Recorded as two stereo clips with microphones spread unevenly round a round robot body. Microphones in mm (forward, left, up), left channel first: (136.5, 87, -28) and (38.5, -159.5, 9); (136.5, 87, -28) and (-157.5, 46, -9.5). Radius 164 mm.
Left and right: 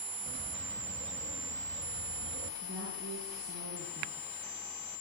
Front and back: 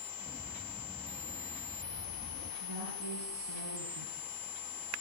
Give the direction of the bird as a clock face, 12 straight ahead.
2 o'clock.